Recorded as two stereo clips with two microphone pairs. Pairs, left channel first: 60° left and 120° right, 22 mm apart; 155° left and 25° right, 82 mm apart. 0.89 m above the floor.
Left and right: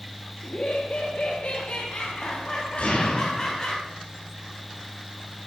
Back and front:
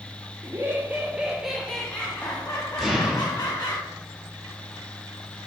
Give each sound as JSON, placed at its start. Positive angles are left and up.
{"t": 0.4, "sound": "laughter", "azimuth_deg": 30, "distance_m": 1.6}
{"t": 2.8, "sound": "an explosion", "azimuth_deg": 70, "distance_m": 5.0}